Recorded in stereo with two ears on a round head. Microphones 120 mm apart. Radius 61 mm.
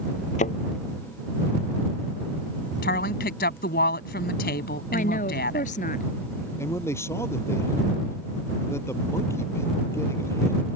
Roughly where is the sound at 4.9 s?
Left.